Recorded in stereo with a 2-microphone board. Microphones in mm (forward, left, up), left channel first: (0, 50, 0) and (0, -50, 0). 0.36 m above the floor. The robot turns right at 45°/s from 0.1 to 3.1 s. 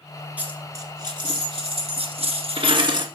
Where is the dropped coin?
165° right, 1.8 m; by 3.0 s 45° right, 1.8 m.